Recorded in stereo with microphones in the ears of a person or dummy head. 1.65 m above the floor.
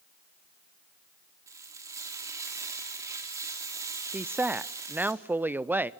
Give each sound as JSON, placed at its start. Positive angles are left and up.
{"t": 1.5, "sound": "frying", "side_deg": -15, "distance_m": 3.0}
{"t": 4.1, "sound": "a woman speaking", "side_deg": -10, "distance_m": 0.5}